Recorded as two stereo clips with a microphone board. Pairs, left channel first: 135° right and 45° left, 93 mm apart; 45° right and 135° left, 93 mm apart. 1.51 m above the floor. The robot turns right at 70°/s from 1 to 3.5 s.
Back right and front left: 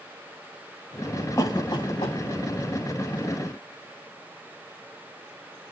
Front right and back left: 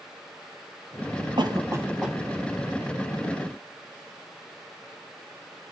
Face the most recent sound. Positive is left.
turn(degrees=-45)